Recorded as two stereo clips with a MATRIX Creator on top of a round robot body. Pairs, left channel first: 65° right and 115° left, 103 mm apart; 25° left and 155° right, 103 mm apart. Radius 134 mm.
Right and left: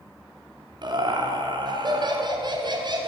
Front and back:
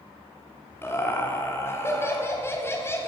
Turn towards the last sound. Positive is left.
turn(degrees=85)